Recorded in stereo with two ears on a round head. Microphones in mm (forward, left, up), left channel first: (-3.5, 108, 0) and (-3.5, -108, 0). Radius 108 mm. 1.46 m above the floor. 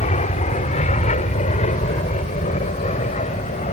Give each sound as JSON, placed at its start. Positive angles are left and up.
{"t": 0.0, "sound": "an aircraft", "side_deg": 30}